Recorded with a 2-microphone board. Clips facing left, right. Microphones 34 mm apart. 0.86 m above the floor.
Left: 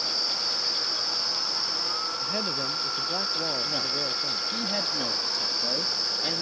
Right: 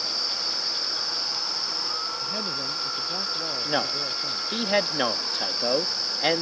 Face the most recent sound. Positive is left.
turn(degrees=-55)  # may be behind; listen again after turning